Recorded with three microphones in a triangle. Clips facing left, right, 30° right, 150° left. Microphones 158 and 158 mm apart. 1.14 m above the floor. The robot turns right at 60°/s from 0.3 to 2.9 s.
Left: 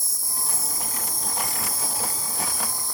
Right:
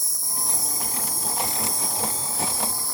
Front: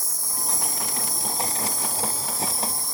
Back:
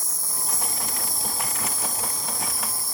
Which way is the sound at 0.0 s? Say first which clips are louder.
Right 2 dB, front 1 dB; 75° right.